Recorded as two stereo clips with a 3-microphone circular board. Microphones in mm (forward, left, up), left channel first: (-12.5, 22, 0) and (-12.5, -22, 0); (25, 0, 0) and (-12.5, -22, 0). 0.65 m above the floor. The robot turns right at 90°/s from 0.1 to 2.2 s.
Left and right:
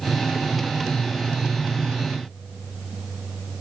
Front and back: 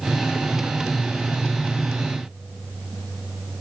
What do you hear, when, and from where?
Only background noise.